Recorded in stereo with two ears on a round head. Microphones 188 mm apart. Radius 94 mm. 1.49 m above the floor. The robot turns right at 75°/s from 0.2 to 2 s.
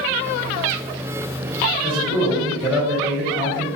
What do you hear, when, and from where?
1.8 s a man speaking: centre (ahead or behind), 1.4 m; by 3.7 s 15° right (ahead or behind), 1.4 m